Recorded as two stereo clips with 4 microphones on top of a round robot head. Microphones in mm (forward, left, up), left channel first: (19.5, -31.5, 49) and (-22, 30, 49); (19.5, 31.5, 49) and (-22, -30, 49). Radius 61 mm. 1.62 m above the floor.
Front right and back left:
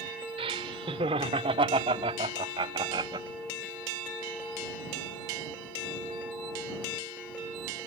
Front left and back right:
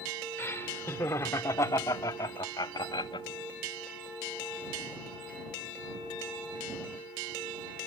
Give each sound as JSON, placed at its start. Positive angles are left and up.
{"t": 0.4, "sound": "laughter", "azimuth_deg": 120}